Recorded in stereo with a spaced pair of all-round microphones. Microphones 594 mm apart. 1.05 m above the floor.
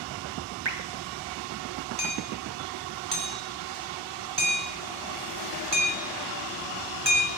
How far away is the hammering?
About 2.5 m.